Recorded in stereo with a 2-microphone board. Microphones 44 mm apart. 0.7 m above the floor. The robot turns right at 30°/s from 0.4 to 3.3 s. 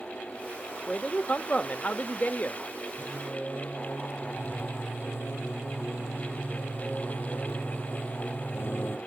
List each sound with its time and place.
0.9 s a man speaking: 35° left, 0.9 m; by 2.6 s 90° left, 0.9 m
3.0 s singing: 45° left (ahead or behind), 1.9 m; by 9.0 s 50° left (ahead or behind), 1.9 m